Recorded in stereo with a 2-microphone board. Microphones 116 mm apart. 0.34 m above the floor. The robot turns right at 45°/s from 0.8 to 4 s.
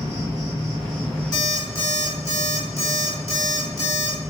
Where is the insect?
140° right, 1.9 m; by 4.3 s 5° left, 1.9 m.